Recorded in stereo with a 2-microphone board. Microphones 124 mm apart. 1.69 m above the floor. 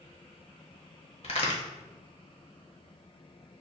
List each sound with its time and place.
1.2 s a crack: 50° left (ahead or behind), 0.9 m